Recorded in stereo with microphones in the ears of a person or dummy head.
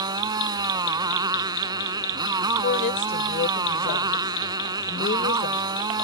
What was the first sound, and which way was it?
A motorcycle, 20° right (ahead or behind).